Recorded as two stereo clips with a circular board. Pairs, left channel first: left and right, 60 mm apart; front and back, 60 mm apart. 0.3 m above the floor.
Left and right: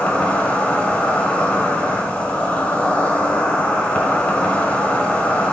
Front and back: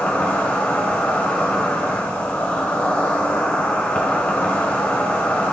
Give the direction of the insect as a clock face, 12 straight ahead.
11 o'clock.